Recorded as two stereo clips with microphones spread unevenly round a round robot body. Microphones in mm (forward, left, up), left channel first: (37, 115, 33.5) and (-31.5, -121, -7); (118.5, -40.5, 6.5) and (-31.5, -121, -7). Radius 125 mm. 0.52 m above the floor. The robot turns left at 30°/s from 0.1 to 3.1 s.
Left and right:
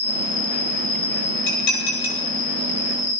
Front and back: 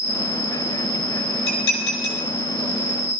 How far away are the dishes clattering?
About 9 m.